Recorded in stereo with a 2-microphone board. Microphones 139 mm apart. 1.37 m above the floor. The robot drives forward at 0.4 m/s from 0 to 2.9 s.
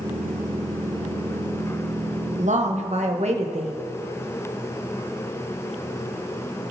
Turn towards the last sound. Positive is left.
turn(degrees=-50)  # may be behind; listen again after turning